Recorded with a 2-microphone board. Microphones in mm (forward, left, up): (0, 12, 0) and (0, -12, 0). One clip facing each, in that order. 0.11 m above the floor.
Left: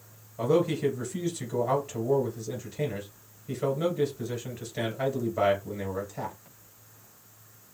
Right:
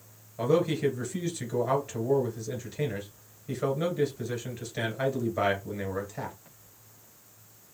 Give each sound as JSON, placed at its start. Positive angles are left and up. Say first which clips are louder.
{"t": 0.4, "sound": "a man speaking", "louder": "even", "side_deg": -20, "distance_m": 2.0}